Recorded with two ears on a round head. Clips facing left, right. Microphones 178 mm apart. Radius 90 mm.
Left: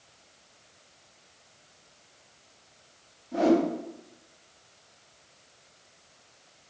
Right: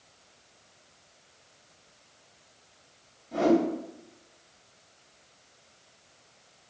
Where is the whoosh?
50° right (ahead or behind), 1.7 m.